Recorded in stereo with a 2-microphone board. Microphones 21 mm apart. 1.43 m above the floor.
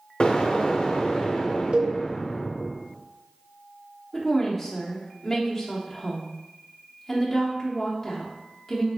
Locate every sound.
0.2 s an explosion: 45° left (ahead or behind), 0.6 m
1.7 s a cowbell: 50° right (ahead or behind), 0.5 m
4.1 s a woman speaking: 5° left (ahead or behind), 0.9 m